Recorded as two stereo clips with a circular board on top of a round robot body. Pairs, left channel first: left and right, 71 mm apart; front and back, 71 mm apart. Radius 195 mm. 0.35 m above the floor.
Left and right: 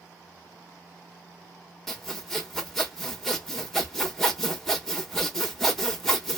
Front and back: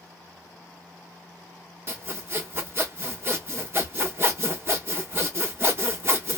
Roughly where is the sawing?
Behind.